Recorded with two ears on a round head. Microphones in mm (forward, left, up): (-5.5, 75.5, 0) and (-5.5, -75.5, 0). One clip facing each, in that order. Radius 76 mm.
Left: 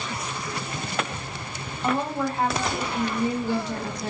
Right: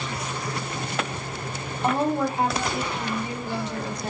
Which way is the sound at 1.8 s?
15° right (ahead or behind).